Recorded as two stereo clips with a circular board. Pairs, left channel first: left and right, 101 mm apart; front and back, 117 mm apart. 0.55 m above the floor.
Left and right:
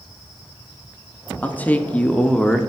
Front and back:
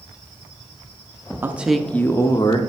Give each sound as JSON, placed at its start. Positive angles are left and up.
{"t": 1.4, "sound": "a man speaking", "azimuth_deg": 140, "distance_m": 0.6}